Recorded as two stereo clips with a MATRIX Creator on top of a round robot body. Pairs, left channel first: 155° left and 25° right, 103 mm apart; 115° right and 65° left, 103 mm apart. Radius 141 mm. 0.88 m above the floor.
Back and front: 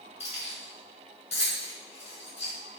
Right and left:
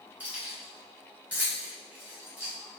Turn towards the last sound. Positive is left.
turn(degrees=140)